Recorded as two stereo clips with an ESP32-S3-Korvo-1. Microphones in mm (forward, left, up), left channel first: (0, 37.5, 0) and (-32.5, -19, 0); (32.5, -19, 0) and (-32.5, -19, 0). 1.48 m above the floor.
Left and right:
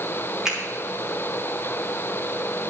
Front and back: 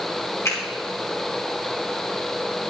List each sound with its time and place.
0.5 s a finger snap: 40° right, 3.5 m